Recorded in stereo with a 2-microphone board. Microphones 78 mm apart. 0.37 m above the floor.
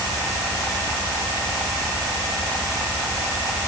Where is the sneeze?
I don't hear a sneeze.